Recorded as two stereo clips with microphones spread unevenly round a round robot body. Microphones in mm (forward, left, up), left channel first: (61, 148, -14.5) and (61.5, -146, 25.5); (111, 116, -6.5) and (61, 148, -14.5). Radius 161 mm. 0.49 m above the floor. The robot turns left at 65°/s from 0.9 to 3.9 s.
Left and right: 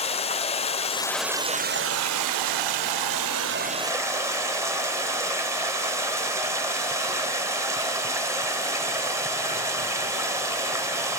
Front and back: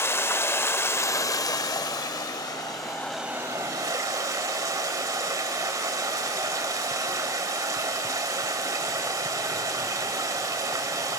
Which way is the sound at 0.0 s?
20° left.